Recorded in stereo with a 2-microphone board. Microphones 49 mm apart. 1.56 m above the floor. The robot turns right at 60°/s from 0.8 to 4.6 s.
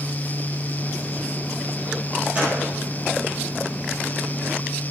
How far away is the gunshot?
About 9 m.